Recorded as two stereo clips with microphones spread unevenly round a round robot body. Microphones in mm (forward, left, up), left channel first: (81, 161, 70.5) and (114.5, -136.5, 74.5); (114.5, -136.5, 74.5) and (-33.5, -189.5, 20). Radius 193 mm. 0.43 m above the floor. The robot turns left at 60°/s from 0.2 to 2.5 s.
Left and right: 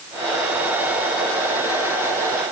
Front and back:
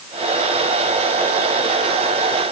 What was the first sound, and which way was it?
Only background noise.